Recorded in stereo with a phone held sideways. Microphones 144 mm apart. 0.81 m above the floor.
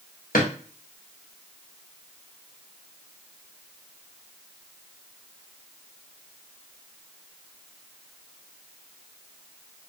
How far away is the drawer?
About 0.8 m.